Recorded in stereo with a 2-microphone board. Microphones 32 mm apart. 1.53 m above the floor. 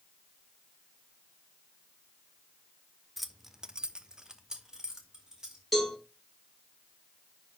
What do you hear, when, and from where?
3.2 s keys jangling: centre (ahead or behind), 1.0 m; by 5.6 s 20° right (ahead or behind), 3 m
5.7 s a cowbell: centre (ahead or behind), 4.5 m